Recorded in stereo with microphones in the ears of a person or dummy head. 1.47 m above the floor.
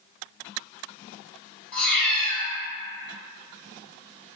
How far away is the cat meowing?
About 1.3 m.